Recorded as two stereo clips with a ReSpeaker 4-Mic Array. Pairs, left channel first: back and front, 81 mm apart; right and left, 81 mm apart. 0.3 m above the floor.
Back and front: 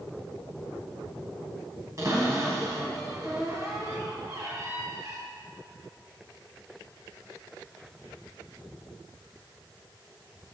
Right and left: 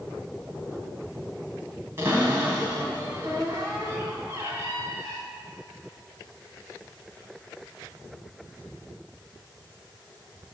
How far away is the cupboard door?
About 2.5 m.